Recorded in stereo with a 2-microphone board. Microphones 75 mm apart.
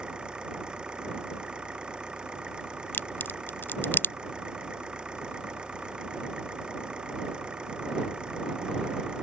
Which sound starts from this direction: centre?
An engine running, at 0.0 s.